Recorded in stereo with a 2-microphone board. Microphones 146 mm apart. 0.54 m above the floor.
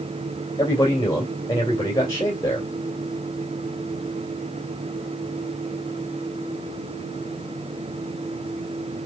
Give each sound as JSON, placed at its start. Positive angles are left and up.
{"t": 0.6, "sound": "a man speaking", "side_deg": 25, "distance_m": 2.0}